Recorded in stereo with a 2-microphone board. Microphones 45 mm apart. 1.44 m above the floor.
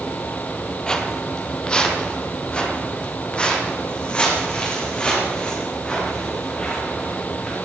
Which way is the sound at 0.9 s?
15° left (ahead or behind).